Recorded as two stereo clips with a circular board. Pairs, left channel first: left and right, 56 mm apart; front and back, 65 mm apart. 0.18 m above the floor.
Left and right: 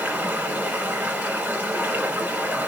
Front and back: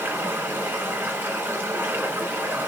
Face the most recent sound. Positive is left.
turn(degrees=-135)